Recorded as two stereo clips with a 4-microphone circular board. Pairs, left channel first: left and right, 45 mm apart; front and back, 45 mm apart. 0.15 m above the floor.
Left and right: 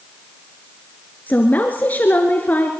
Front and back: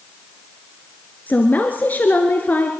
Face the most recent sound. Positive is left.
turn(degrees=45)